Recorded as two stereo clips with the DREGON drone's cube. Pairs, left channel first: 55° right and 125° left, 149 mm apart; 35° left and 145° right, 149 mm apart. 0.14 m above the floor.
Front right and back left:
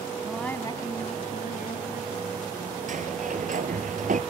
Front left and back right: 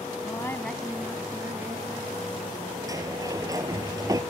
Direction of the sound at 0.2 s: 50° left.